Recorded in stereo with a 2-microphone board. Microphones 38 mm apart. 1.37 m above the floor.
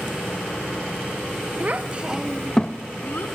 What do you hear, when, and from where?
1.6 s a child speaking: 40° right (ahead or behind), 1.0 m; by 3.3 s 55° left (ahead or behind), 1.0 m